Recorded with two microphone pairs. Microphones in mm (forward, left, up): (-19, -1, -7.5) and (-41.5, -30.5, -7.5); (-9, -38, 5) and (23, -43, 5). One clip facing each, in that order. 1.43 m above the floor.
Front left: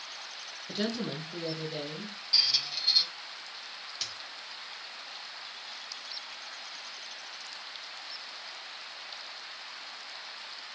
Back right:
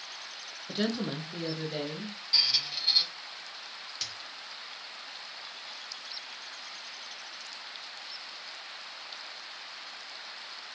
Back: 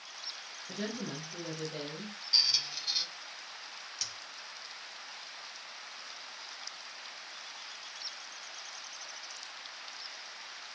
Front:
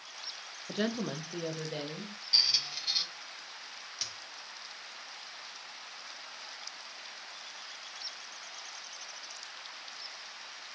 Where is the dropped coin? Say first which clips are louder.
Even, front 1 dB; 50° right, 0.8 m.